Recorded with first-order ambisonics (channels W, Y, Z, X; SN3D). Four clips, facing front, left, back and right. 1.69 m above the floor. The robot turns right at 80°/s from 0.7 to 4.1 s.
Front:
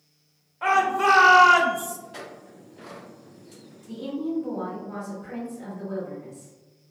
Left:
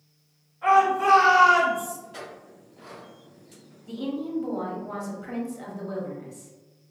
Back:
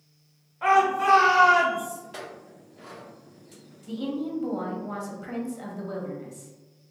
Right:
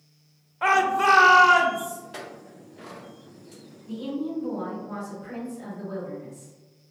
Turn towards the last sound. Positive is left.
turn(degrees=145)